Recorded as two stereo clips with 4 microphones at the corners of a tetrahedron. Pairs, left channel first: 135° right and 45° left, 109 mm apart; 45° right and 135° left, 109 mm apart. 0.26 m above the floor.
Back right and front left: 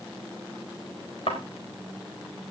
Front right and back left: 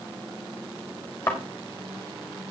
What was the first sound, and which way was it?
A thud, 110° right.